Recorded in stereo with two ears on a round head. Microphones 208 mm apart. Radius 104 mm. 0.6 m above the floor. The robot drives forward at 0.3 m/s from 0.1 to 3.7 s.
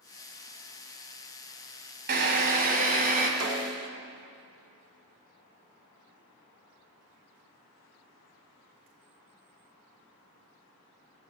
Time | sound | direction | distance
2.1 | a drill | 45° right (ahead or behind) | 1.5 m
3.4 | a snare drum | 70° right (ahead or behind) | 1.2 m